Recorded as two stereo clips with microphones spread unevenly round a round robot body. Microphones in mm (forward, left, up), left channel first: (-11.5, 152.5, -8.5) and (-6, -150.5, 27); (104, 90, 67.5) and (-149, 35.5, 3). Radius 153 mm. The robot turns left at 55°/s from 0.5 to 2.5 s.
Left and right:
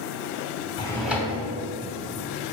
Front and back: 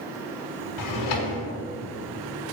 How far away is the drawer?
About 0.8 m.